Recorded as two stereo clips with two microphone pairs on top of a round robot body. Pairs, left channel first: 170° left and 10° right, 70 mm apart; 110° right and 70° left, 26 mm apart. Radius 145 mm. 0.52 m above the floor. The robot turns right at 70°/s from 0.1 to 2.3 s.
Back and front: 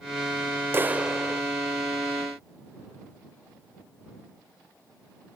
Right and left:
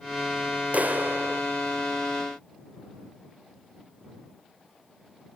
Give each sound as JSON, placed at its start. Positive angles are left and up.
{"t": 0.7, "sound": "a clap", "azimuth_deg": 40}